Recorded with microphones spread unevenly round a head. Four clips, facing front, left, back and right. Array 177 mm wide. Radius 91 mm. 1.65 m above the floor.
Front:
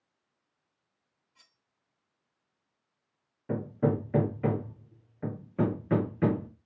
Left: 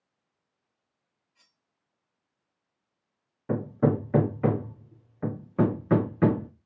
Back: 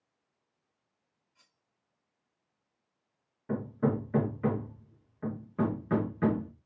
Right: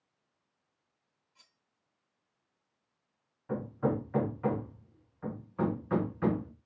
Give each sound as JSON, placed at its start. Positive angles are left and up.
{"t": 1.4, "sound": "cutlery clinking", "azimuth_deg": -35, "distance_m": 3.0}
{"t": 3.5, "sound": "hammering", "azimuth_deg": 80, "distance_m": 0.9}